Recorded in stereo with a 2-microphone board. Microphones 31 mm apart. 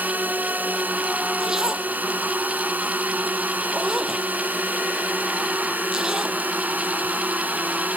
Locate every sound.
0.0 s a drone: 60° right (ahead or behind)
1.4 s a zipper: 15° right (ahead or behind)